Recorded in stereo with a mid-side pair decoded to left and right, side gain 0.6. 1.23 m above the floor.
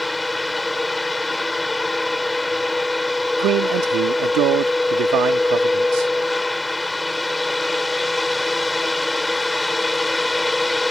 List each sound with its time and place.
0.0 s a fan: 10° left
3.4 s a man speaking: 65° right